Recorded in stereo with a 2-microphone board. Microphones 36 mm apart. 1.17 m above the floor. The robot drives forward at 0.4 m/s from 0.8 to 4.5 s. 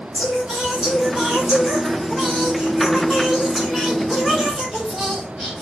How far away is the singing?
About 3 m.